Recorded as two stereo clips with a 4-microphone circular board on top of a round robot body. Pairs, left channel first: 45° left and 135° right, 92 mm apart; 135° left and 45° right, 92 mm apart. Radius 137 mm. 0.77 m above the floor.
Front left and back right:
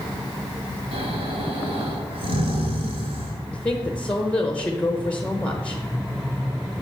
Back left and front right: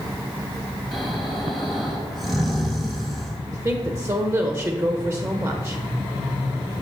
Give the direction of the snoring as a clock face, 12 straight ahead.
4 o'clock.